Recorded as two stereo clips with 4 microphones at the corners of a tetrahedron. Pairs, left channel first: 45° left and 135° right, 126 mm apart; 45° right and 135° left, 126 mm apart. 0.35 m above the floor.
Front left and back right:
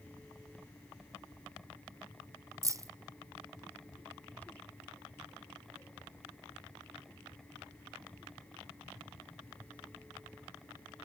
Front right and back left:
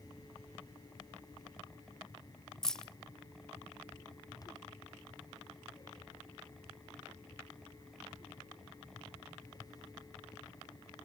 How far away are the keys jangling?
About 0.5 m.